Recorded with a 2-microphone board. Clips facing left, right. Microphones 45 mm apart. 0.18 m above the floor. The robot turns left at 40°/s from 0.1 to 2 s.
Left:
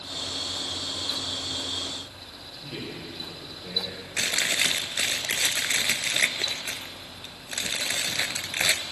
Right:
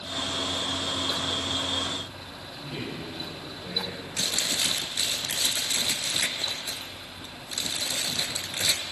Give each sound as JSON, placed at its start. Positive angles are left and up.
{"t": 2.6, "sound": "a man speaking", "side_deg": 5, "distance_m": 4.5}
{"t": 4.2, "sound": "chewing", "side_deg": 65, "distance_m": 0.6}